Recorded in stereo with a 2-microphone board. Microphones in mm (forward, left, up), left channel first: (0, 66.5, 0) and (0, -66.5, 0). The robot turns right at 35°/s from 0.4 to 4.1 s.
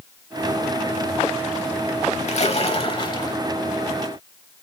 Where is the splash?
110° left, 0.8 m; by 3.4 s 145° left, 0.8 m.